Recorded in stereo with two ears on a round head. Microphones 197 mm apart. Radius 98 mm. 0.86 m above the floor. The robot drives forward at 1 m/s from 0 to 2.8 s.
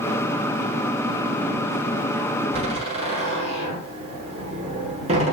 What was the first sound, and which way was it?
A door slam, 30° right (ahead or behind).